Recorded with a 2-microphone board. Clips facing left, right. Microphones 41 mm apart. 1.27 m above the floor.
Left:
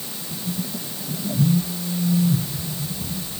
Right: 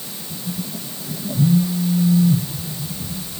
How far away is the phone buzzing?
About 3.5 m.